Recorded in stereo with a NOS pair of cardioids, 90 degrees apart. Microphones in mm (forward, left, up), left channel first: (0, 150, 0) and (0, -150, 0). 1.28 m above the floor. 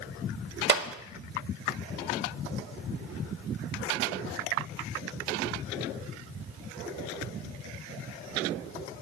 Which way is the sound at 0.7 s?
35° right.